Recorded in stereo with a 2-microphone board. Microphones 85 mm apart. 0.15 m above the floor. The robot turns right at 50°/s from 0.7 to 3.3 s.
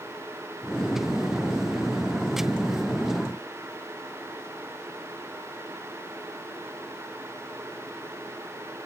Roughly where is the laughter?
No laughter in this recording.